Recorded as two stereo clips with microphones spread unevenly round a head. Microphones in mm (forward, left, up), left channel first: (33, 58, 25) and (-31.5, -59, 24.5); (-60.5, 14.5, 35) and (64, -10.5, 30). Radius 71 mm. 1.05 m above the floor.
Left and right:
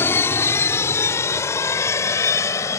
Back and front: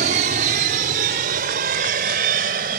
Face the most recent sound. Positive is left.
turn(degrees=-10)